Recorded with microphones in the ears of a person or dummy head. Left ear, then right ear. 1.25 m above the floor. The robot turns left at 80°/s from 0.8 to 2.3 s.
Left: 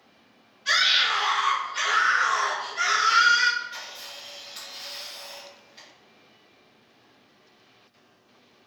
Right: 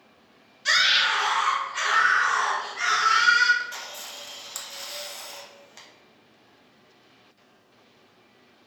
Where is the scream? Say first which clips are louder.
Right 1 dB; 65° right, 2.0 m; by 3.5 s 175° left, 2.0 m.